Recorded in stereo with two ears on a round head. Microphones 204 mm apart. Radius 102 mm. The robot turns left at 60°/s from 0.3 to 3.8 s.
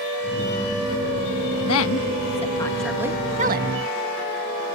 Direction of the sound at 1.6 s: 70° left (ahead or behind).